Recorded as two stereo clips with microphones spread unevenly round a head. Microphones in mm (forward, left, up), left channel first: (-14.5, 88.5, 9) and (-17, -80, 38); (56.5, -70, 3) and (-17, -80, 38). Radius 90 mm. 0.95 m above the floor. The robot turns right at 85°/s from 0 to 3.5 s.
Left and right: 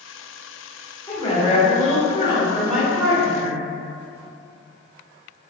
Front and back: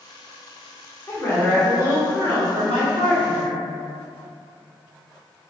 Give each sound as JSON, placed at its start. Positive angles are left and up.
{"t": 1.1, "sound": "a woman speaking", "azimuth_deg": 35, "distance_m": 1.1}